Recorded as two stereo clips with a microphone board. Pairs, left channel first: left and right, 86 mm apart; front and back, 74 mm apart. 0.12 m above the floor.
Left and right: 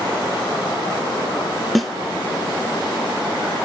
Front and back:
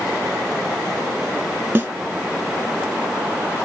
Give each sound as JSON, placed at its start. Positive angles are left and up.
{"t": 1.8, "sound": "a snare drum", "azimuth_deg": 175, "distance_m": 0.7}